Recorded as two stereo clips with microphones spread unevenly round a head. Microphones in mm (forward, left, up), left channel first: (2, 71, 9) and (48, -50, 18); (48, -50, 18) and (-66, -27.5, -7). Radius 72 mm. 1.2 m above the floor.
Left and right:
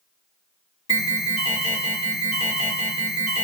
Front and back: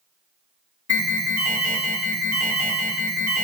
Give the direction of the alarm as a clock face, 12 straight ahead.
9 o'clock.